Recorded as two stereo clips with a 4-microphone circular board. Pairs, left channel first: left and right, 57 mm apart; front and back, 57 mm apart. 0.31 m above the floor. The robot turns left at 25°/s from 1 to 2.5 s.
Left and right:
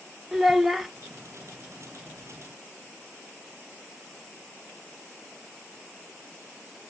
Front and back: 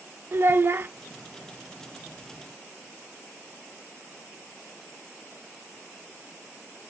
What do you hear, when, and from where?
0.3 s a child speaking: 175° right, 0.7 m